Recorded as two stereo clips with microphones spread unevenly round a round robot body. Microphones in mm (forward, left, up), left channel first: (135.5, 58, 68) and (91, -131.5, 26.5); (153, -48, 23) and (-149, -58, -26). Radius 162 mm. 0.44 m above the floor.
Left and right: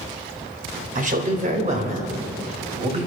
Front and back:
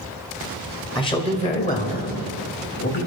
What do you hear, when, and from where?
0.9 s a man speaking: 75° right, 2 m; by 3.1 s 50° right, 3 m